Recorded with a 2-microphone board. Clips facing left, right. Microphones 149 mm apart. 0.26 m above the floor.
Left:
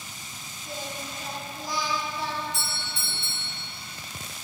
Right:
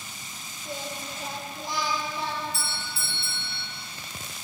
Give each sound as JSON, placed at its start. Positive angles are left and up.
{"t": 0.7, "sound": "singing", "side_deg": -25, "distance_m": 4.0}
{"t": 2.5, "sound": "a doorbell", "side_deg": -30, "distance_m": 2.5}